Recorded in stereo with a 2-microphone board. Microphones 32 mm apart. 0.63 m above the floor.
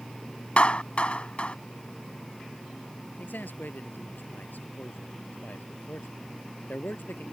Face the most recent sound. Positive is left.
turn(degrees=85)